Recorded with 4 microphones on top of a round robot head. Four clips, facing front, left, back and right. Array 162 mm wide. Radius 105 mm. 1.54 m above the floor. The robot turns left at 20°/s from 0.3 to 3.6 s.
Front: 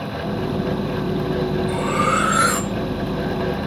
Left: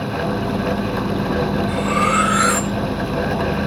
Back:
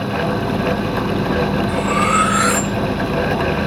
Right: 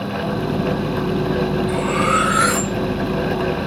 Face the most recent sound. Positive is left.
turn(degrees=-60)